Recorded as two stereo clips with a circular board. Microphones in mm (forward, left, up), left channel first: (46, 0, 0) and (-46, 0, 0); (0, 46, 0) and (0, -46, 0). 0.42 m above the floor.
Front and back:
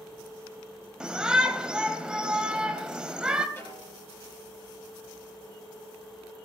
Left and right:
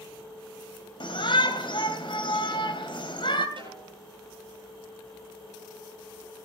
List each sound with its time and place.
1.0 s a shout: 100° left, 2.5 m
3.6 s a snare drum: 60° right, 7.5 m